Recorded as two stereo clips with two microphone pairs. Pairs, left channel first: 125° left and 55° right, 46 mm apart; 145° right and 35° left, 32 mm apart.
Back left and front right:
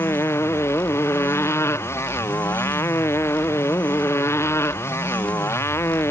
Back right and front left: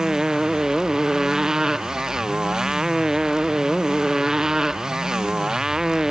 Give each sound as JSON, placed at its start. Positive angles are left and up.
{"t": 0.0, "sound": "a motorcycle", "azimuth_deg": 105}